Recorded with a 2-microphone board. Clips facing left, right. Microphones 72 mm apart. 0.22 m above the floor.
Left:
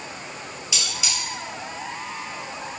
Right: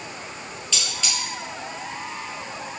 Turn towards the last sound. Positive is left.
turn(degrees=10)  # may be behind; listen again after turning